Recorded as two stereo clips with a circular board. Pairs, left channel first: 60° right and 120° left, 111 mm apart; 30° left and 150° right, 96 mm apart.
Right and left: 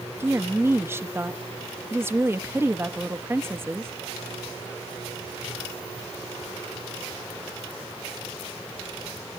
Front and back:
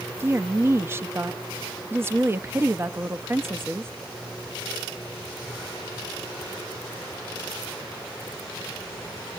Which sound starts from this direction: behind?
A woman speaking, at 0.2 s.